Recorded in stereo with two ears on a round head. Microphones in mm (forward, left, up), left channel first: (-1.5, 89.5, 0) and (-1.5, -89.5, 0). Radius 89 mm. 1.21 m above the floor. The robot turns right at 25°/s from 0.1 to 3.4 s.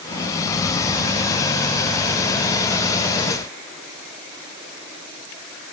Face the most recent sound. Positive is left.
No sound to turn to.